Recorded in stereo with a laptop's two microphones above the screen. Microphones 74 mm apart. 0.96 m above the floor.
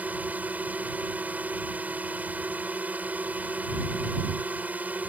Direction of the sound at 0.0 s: 20° right (ahead or behind).